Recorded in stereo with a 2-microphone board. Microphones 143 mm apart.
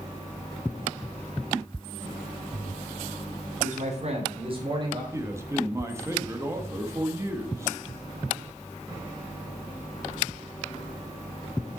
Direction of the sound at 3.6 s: 60° right (ahead or behind).